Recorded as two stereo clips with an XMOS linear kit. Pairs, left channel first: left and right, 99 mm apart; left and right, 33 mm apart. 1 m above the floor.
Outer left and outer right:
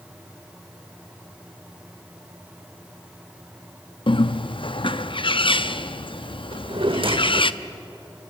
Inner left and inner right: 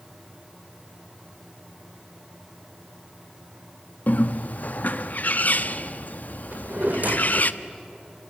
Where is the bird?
55° left (ahead or behind), 0.6 m.